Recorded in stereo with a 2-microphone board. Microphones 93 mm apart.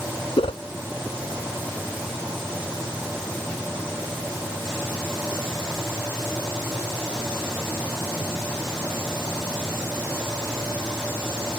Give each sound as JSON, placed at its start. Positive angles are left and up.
{"t": 0.4, "sound": "a whoosh", "side_deg": 75}